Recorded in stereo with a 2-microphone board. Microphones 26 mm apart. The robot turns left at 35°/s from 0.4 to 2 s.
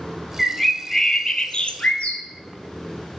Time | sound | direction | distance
0.4 | a bird | straight behind | 0.7 m